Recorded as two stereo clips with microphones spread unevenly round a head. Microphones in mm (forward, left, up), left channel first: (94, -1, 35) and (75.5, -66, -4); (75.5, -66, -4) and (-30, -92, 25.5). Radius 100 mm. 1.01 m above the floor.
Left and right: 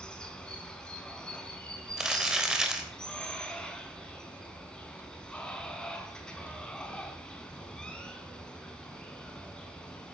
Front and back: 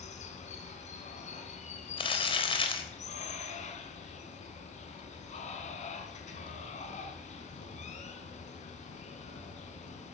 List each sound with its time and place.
0.0 s running water: straight ahead, 4 m
2.0 s crumpling: 25° right, 4 m